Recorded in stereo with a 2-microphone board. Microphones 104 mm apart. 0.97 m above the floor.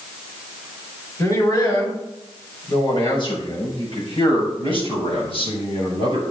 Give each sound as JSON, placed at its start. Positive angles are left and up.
{"t": 1.2, "sound": "a man speaking", "side_deg": 35, "distance_m": 4.5}